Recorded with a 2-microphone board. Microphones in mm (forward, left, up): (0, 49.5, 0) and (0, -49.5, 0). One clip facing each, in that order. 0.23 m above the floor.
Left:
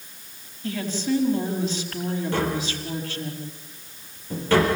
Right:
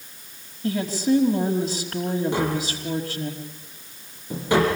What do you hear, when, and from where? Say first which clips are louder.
0.6 s a woman speaking: right 4 dB; 35° right (ahead or behind), 5 m
2.3 s tapping: right 1 dB; 15° right (ahead or behind), 6 m